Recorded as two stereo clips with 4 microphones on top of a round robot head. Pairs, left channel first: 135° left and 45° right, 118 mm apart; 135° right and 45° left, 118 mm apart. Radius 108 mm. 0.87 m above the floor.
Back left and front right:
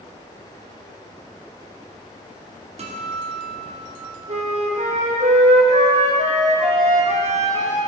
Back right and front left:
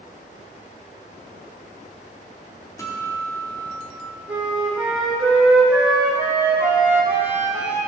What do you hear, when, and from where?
2.8 s a guitar: 70° right, 2 m
4.3 s a flute: 35° right, 2.5 m